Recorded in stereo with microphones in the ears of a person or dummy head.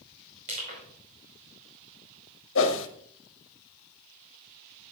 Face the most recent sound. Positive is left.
turn(degrees=70)  # may be behind; listen again after turning